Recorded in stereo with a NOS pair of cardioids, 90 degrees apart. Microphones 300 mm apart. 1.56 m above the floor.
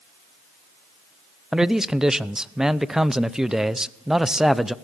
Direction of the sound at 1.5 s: Straight ahead.